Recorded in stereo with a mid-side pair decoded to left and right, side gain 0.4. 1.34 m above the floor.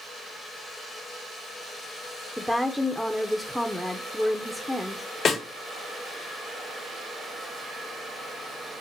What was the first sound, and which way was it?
A woman speaking, 10° left.